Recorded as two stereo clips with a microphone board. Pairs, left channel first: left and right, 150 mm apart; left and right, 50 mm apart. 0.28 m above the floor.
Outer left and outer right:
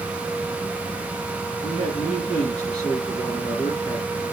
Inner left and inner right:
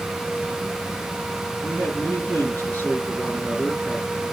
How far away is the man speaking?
About 4.5 m.